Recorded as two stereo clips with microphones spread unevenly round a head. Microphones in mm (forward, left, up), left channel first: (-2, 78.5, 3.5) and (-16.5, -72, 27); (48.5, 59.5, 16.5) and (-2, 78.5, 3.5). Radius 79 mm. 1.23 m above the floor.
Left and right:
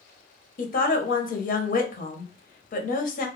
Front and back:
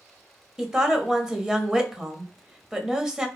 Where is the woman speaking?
90° left, 0.7 m.